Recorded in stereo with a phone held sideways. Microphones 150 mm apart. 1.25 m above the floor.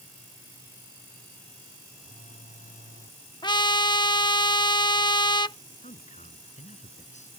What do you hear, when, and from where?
2.0 s a phone buzzing: 60° left (ahead or behind)
3.4 s a trumpet: 30° left (ahead or behind)
5.8 s a man speaking: 50° left (ahead or behind)